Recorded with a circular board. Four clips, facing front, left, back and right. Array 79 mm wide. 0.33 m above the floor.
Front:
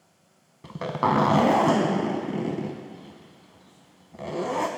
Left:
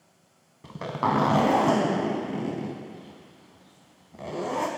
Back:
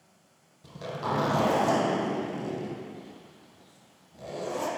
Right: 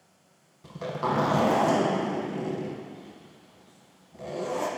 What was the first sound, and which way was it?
A zipper, 25° left.